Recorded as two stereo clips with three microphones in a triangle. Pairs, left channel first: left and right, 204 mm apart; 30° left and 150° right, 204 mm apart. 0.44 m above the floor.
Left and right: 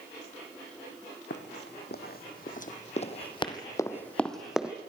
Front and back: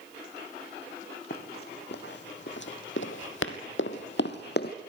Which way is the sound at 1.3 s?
65° left.